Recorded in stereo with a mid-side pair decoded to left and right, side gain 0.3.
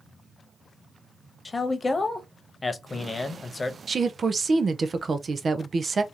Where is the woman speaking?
50° right, 0.7 m.